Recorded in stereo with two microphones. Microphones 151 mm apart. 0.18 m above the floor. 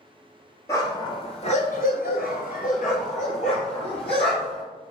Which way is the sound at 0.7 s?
20° left (ahead or behind).